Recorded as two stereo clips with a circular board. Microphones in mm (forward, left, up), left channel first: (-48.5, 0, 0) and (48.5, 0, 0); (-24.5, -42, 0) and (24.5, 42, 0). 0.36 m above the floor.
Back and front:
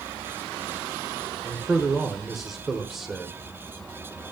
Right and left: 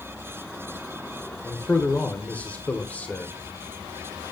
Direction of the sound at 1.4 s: 85° right.